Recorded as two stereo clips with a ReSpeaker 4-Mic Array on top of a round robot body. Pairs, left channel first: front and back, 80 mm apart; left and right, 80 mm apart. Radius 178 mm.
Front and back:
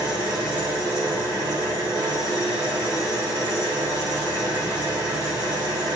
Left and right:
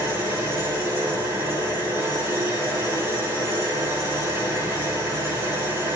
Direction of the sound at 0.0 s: 150° right.